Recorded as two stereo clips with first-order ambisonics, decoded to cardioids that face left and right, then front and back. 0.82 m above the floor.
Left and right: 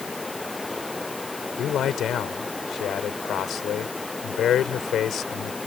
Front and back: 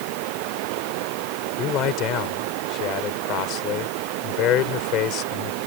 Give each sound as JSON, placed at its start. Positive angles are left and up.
{"t": 0.0, "sound": "running water", "azimuth_deg": 175}
{"t": 1.6, "sound": "a man speaking", "azimuth_deg": 35}